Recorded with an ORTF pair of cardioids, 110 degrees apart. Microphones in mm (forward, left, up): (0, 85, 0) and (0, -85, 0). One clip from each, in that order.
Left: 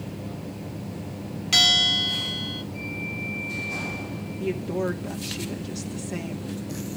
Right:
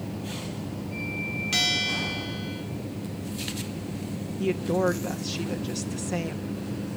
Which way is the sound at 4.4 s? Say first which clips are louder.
Right 3 dB; 30° right.